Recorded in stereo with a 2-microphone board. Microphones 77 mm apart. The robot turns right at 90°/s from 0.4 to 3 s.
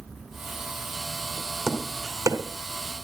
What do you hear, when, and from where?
1.7 s tapping: 5° right (ahead or behind), 2 m; by 2.4 s 45° right (ahead or behind), 2 m